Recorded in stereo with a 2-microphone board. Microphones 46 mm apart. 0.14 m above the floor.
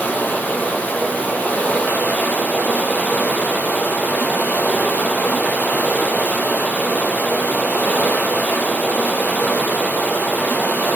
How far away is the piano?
I don't hear a piano.